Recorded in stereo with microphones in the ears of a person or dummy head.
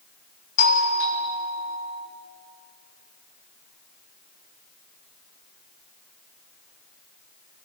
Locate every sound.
0.6 s a doorbell: 85° left, 4 m